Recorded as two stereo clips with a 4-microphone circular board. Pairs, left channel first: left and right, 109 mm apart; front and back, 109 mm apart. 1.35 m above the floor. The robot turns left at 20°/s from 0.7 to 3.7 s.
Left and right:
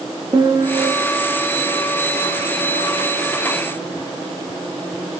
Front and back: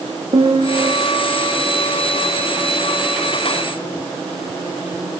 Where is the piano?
140° right, 1.5 m; by 0.9 s 145° right, 1.5 m.